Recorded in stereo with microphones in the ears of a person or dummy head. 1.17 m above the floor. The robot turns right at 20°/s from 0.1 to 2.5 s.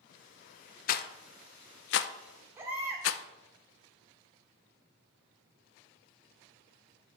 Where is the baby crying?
15° right (ahead or behind), 2 m.